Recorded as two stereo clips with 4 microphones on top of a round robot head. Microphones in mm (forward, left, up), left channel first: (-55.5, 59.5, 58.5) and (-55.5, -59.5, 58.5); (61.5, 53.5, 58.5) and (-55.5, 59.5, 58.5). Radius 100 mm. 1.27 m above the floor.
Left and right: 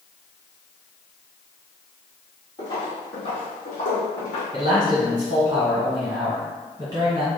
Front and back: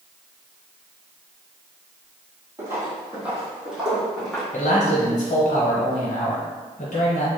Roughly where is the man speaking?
Ahead right.